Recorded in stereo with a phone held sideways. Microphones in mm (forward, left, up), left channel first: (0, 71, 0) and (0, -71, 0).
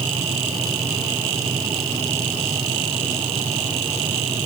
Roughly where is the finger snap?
I don't hear a finger snap.